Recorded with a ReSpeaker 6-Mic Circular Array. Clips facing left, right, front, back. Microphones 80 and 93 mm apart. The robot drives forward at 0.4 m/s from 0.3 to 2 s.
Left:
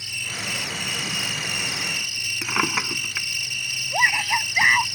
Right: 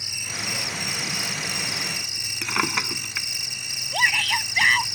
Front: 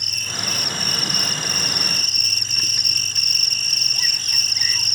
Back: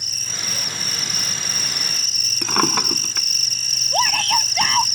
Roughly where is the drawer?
Behind.